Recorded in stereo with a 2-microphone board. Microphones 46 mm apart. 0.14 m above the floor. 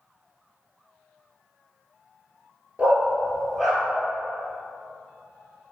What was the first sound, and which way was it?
A dog barking, 25° right (ahead or behind).